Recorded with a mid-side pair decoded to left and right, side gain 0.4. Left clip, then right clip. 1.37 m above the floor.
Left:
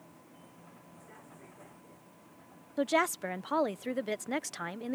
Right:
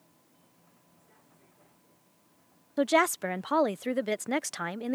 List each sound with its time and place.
0.0 s a vehicle: 65° left
2.8 s a woman speaking: 35° right